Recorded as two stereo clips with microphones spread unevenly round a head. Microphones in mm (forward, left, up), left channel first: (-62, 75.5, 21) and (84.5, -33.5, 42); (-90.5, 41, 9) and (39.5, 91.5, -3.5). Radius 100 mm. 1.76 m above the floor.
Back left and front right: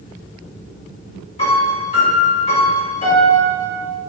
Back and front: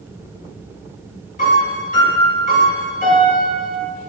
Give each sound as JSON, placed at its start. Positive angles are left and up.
{"t": 1.4, "sound": "a piano", "azimuth_deg": -155, "distance_m": 4.0}